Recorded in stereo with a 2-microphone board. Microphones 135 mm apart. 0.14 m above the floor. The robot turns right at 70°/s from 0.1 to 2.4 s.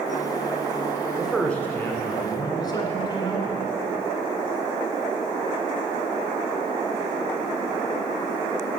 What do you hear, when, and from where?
1.2 s a man speaking: 5° right (ahead or behind), 1.7 m; by 3.6 s 30° left (ahead or behind), 1.7 m